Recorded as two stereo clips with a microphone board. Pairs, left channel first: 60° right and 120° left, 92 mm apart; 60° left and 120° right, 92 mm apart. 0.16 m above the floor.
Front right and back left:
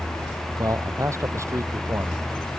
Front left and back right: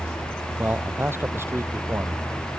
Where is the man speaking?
175° left; by 2.3 s straight behind.